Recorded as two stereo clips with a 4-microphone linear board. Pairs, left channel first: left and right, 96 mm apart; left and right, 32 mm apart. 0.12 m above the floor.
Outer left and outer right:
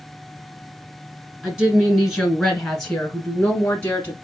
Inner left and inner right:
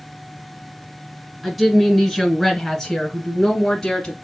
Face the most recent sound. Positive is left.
turn(degrees=20)  # may be behind; listen again after turning